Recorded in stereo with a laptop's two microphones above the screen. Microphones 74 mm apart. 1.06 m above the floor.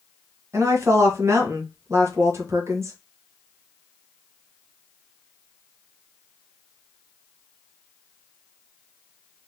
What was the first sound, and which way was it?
A woman speaking, 40° right (ahead or behind).